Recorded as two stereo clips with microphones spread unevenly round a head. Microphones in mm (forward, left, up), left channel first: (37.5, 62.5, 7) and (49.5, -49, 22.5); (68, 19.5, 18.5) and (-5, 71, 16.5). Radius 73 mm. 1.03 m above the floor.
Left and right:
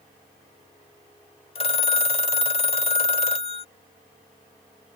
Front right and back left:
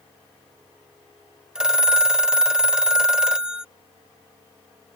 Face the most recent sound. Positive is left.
turn(degrees=60)